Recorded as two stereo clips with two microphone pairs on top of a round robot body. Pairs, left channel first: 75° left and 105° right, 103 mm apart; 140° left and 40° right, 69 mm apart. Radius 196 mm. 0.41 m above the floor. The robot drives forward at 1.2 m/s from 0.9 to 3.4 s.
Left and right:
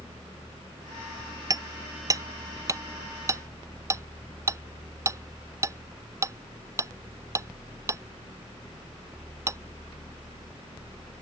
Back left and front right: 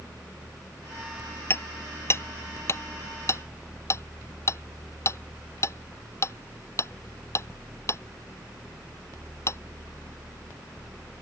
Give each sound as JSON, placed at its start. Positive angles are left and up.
{"t": 1.5, "sound": "hammering", "azimuth_deg": -160}